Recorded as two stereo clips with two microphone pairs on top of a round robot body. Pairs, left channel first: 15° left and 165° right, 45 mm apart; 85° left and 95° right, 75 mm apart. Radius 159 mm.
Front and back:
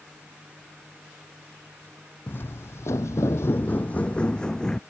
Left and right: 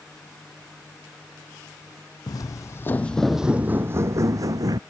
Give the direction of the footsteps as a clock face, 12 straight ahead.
10 o'clock.